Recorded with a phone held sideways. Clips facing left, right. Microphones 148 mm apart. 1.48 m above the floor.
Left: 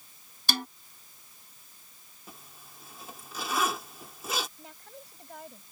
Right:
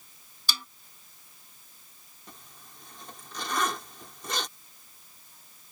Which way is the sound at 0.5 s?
60° left (ahead or behind).